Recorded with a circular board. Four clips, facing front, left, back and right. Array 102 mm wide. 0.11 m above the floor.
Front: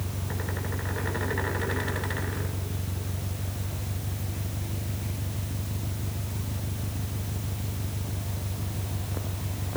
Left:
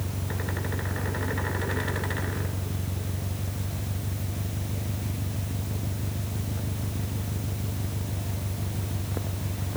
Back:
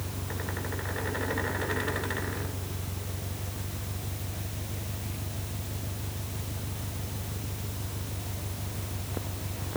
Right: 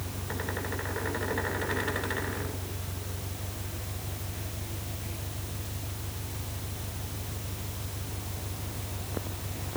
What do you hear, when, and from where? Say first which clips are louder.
0.0 s an engine running: left 2 dB, front 2 dB; 75° left